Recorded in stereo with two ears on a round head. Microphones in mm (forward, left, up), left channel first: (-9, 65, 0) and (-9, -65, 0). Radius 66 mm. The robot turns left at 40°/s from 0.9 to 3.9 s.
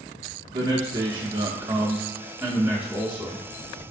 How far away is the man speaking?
About 0.7 m.